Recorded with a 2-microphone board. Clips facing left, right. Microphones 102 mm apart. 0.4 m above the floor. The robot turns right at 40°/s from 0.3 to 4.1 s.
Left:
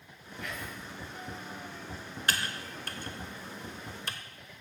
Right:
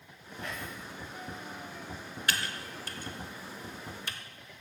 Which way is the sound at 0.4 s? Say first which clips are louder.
Even; 35° right (ahead or behind).